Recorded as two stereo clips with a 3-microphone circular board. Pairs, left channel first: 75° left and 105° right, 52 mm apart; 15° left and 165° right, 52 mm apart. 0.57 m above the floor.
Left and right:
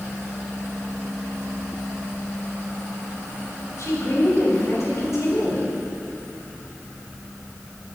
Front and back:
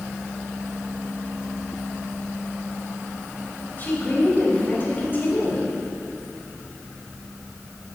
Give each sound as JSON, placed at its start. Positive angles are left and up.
{"t": 3.8, "sound": "a woman speaking", "azimuth_deg": 65, "distance_m": 3.5}